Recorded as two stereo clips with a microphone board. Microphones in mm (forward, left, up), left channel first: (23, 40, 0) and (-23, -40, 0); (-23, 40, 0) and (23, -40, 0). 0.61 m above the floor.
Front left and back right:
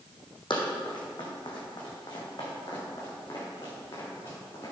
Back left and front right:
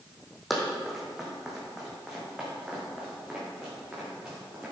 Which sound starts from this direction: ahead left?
Running footsteps, at 0.5 s.